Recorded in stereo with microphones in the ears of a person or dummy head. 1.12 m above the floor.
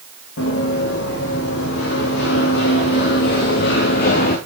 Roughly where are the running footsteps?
Left.